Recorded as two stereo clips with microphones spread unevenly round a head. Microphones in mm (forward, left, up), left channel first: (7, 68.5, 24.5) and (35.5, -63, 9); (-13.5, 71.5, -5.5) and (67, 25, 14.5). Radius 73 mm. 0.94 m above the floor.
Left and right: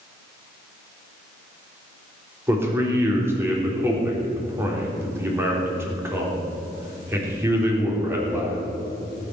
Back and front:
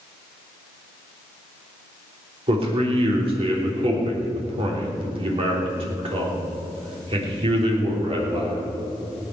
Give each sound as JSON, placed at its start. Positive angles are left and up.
{"t": 2.5, "sound": "a man speaking", "azimuth_deg": -5, "distance_m": 3.5}